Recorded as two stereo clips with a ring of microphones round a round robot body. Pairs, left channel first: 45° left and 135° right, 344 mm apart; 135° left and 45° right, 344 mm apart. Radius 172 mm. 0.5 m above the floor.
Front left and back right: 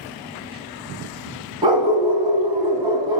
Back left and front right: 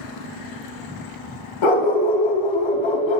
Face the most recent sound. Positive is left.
turn(degrees=145)